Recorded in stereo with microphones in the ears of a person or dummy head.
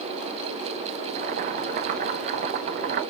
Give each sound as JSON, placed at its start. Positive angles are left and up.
{"t": 1.1, "sound": "boiling", "side_deg": -45, "distance_m": 0.8}